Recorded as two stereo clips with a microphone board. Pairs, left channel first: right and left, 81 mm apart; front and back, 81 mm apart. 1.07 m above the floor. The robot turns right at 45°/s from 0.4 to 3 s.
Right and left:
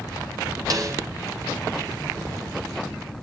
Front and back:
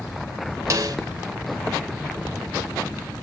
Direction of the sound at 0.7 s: 130° left.